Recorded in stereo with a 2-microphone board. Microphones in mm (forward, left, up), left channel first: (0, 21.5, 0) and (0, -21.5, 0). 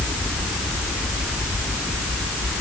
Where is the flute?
No flute in this recording.